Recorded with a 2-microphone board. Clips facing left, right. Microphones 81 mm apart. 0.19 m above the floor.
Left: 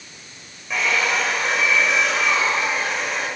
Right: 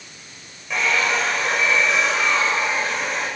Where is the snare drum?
No snare drum in this recording.